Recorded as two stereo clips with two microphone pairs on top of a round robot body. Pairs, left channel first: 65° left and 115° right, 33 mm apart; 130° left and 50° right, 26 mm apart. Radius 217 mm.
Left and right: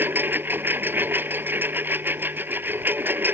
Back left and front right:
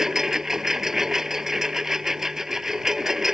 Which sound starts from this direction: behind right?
A lawn mower, at 0.0 s.